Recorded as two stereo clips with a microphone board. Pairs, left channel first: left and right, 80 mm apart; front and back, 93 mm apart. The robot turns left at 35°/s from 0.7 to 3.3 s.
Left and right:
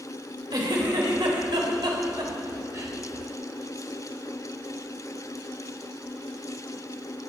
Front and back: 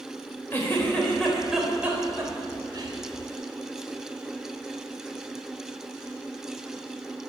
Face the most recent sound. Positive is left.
turn(degrees=-160)